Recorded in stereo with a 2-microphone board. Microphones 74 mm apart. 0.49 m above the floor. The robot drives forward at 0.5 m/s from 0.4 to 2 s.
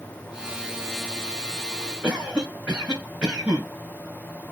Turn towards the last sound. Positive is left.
turn(degrees=-20)  # may be behind; listen again after turning